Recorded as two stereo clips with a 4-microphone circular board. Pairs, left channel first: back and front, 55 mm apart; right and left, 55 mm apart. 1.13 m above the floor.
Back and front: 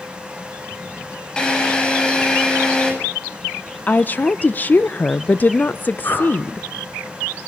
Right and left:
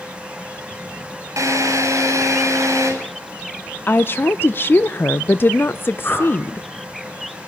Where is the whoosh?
140° right, 8.5 m.